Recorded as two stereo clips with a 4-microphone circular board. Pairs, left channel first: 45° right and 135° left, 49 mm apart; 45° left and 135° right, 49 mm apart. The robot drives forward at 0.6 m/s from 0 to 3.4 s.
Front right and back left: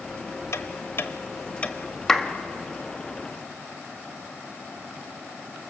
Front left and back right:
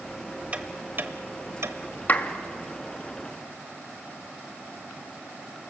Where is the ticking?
70° right, 1.1 m; by 1.8 s 110° right, 1.1 m.